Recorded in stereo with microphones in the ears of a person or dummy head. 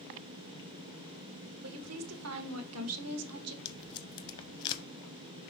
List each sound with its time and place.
1.6 s a woman speaking: 80° right, 1.2 m
3.6 s tape being pulled: 25° left (ahead or behind), 0.6 m